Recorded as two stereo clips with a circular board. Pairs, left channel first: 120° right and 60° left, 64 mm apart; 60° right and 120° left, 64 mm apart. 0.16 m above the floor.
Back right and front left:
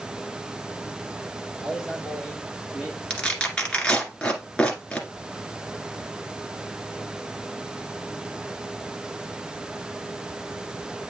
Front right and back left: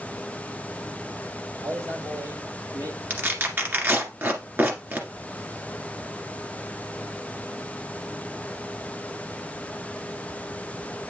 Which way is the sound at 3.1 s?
170° left.